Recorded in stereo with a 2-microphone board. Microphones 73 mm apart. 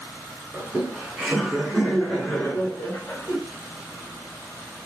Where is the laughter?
15° right (ahead or behind), 1.6 m; by 3.4 s 35° left (ahead or behind), 1.6 m.